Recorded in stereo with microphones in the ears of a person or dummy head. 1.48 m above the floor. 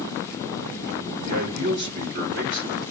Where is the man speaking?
60° right (ahead or behind), 2.0 m.